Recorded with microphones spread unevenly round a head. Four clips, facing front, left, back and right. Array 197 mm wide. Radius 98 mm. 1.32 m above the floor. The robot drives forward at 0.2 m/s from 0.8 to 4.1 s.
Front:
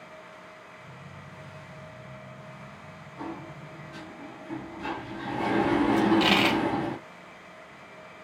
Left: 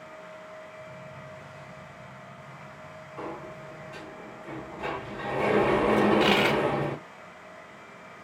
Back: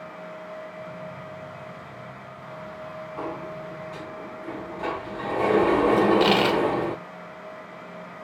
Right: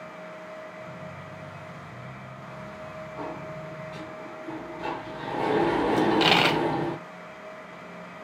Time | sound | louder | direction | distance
3.2 | a sliding door | right 1 dB, back 4 dB | 165° left | 3.5 m
6.0 | a dropped coin | even, back 3 dB | 100° right | 1.4 m